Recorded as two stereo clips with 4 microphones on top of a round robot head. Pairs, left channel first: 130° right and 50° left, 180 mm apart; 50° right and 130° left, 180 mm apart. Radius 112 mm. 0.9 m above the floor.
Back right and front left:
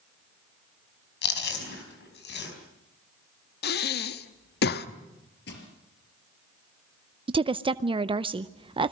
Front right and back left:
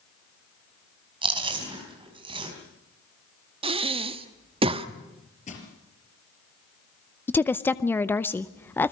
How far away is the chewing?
About 5 m.